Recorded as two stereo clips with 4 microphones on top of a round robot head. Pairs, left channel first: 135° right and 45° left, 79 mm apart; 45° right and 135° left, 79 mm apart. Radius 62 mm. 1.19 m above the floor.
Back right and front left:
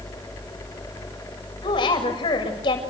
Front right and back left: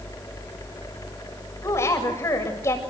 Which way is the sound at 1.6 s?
105° right.